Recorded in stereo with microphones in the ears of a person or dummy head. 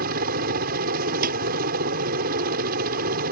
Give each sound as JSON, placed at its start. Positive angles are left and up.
{"t": 0.0, "sound": "a helicopter", "side_deg": -50}
{"t": 1.2, "sound": "a snare drum", "side_deg": -50}